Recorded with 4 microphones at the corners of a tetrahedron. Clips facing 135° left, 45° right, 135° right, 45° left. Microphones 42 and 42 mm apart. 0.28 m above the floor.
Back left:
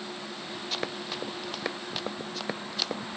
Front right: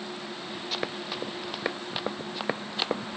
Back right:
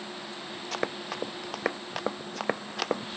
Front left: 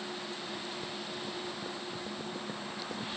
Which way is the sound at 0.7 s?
135° right.